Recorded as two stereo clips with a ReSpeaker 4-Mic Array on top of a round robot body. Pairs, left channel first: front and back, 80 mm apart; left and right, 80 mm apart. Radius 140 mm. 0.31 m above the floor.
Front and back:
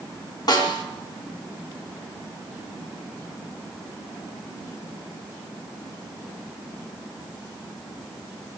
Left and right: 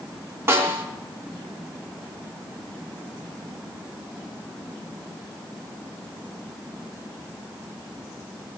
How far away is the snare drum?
About 3 m.